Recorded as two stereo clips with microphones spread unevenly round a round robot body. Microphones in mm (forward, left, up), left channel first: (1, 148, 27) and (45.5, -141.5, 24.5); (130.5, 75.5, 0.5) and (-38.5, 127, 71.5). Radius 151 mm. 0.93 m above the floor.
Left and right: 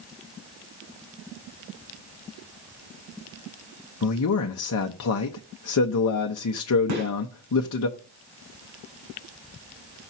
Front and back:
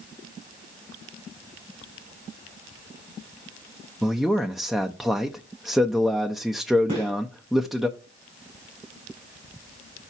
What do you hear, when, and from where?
4.0 s a man speaking: 65° left, 0.8 m
6.9 s a gunshot: 125° right, 5.5 m